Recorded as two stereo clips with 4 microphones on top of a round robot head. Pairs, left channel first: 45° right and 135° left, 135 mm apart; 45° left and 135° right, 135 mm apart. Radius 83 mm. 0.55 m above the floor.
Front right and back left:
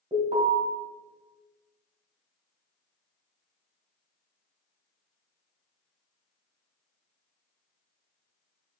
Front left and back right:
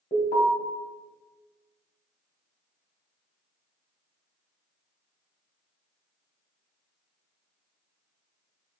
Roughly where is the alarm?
Left.